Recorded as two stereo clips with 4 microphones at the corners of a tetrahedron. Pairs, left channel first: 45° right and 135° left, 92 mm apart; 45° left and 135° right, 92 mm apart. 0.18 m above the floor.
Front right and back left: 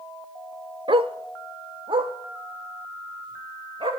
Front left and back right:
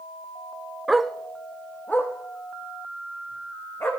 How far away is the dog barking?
About 0.6 m.